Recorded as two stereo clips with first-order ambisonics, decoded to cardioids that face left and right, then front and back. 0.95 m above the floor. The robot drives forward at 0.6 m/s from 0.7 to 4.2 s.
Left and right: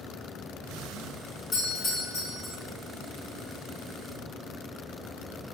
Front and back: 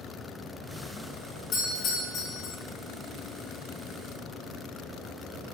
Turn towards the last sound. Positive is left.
turn(degrees=95)